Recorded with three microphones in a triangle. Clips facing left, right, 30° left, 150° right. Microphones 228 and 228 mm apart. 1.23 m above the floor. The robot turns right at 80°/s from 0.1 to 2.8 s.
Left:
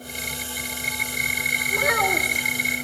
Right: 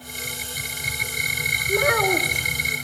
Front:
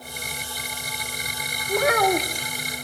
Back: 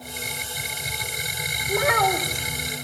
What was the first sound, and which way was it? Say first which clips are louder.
A child speaking: right 5 dB, front 2 dB; 75° right.